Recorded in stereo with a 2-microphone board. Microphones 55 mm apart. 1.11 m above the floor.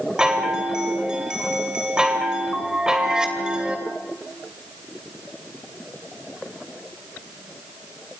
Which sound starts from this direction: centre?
A chime, at 0.2 s.